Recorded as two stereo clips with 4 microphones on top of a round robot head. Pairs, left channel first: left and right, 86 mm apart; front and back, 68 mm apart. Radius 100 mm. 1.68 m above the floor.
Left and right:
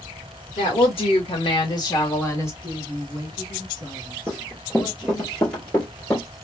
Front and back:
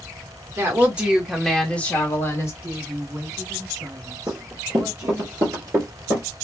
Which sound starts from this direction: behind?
Running footsteps, at 4.3 s.